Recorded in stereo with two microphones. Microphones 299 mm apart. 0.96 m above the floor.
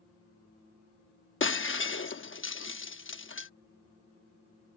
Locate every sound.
1.4 s breaking glass: 40° left (ahead or behind)